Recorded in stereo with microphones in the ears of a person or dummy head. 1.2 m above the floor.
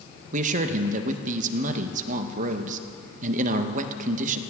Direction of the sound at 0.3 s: 45° right (ahead or behind).